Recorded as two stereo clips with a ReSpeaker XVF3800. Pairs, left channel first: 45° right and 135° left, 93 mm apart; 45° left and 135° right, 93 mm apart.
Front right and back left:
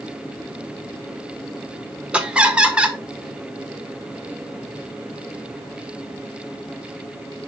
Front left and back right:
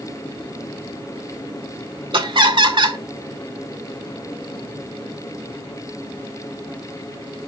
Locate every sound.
2.1 s laughter: 150° right, 1.7 m